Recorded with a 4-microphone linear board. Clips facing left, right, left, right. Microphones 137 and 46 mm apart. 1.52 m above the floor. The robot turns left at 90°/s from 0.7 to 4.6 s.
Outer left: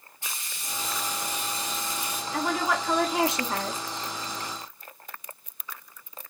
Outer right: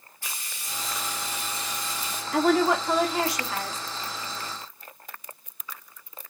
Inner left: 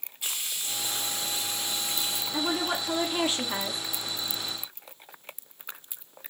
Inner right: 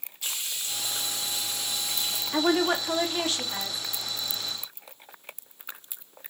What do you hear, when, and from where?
0.2 s frying: 145° left, 1.1 m; by 2.2 s 10° left, 1.1 m
2.3 s a woman speaking: 115° right, 0.7 m; by 3.8 s 110° left, 0.7 m